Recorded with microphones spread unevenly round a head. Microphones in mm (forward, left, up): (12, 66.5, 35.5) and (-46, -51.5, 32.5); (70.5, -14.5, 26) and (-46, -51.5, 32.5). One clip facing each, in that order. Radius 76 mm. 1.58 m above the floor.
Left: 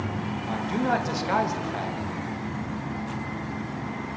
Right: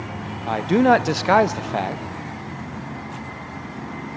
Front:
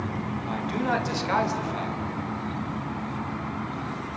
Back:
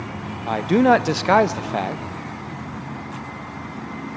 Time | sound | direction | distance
0.5 | a man speaking | 140° right | 0.7 m